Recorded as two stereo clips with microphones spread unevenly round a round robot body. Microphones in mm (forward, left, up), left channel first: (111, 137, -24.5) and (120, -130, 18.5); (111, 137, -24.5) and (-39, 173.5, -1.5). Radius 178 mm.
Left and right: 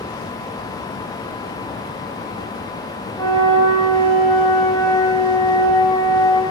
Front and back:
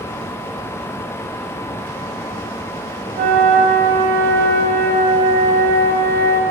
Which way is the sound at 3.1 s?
170° left.